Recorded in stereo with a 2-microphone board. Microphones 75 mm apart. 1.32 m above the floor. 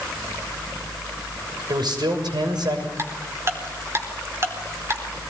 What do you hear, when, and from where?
1.7 s a man speaking: 70° right (ahead or behind), 6.5 m
3.0 s ticking: 35° right (ahead or behind), 4 m